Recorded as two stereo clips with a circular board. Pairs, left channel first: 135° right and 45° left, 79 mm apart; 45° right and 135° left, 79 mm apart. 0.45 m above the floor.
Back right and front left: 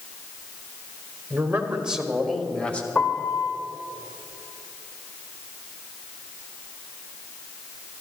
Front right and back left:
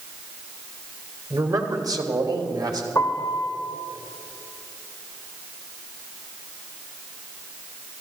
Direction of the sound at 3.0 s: 85° right.